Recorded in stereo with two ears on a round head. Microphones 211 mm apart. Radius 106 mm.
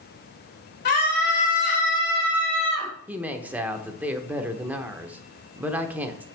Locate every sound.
0.8 s a scream: 40° left (ahead or behind), 1.7 m; by 2.9 s 20° left (ahead or behind), 4 m
3.1 s a woman speaking: 5° right (ahead or behind), 0.8 m